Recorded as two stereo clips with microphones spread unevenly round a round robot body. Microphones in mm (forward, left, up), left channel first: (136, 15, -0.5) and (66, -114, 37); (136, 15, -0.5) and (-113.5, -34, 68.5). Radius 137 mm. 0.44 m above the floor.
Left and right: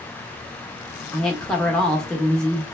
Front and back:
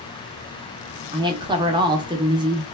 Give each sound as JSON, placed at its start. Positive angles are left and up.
{"t": 1.1, "sound": "a woman speaking", "azimuth_deg": 105, "distance_m": 0.8}